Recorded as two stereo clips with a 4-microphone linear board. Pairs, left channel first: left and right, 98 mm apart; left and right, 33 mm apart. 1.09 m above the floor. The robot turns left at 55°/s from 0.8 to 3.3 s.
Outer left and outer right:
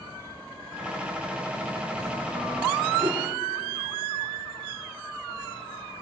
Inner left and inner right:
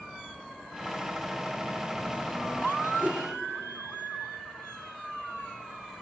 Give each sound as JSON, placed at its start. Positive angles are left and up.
{"t": 3.0, "sound": "a whoosh", "side_deg": -55, "distance_m": 2.5}